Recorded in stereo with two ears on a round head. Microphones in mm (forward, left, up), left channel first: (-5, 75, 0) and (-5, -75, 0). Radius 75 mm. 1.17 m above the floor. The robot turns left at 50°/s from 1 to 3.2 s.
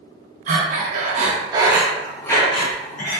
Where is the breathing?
50° right (ahead or behind), 0.7 m; by 3.2 s 60° left (ahead or behind), 0.7 m.